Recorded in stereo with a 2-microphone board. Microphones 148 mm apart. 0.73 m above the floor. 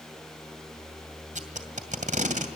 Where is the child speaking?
No child speaking in this recording.